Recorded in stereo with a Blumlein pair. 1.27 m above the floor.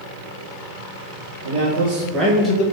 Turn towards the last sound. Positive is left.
turn(degrees=40)